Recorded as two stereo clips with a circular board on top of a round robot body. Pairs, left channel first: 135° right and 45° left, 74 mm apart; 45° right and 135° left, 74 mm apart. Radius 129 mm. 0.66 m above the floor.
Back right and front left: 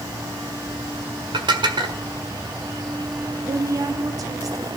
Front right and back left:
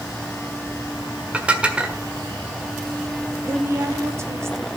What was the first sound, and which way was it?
Dishes clattering, 60° left.